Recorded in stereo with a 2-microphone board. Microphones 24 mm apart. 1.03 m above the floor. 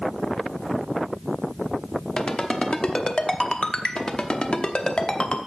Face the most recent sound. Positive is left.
turn(degrees=45)  # may be behind; listen again after turning